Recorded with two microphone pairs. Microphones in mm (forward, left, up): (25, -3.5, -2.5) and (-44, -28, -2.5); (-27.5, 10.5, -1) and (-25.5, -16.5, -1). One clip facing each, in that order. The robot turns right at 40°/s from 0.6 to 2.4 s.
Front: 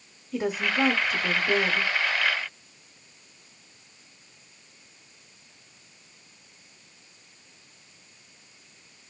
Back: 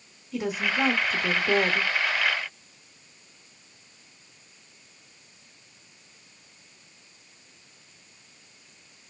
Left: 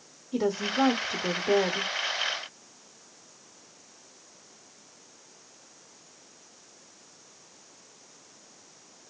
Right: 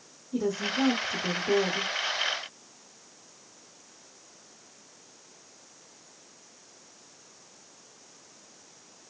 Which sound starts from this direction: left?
A woman speaking, at 0.3 s.